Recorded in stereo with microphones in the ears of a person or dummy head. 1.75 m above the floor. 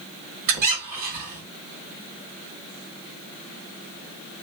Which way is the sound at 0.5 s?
50° right (ahead or behind).